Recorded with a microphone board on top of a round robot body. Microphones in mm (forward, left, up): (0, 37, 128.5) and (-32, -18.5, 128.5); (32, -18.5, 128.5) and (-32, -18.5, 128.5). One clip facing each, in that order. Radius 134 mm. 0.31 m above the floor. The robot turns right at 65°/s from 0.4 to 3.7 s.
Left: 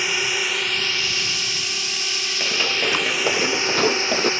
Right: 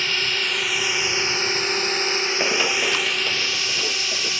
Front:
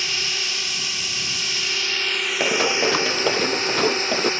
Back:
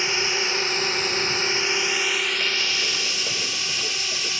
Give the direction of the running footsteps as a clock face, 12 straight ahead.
2 o'clock.